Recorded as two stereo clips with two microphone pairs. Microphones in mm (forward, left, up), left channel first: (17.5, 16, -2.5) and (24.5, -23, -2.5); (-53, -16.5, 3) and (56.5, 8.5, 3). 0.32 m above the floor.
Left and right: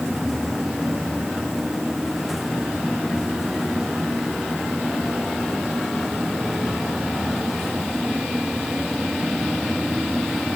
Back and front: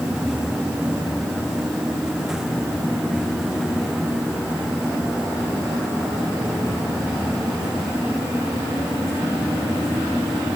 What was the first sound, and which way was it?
Only background noise.